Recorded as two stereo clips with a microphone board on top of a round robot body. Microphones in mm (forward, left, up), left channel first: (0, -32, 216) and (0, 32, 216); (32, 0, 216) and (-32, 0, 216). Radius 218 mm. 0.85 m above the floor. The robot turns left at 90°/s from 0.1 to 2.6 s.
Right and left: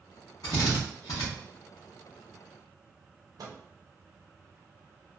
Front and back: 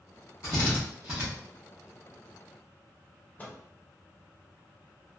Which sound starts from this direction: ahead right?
A drill, at 0.4 s.